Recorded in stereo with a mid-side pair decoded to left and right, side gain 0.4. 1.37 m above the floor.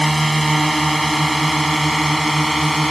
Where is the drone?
10° right; by 2.9 s 5° right.